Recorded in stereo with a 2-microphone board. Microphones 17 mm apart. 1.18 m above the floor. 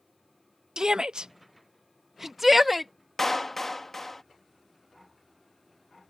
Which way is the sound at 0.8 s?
55° right (ahead or behind).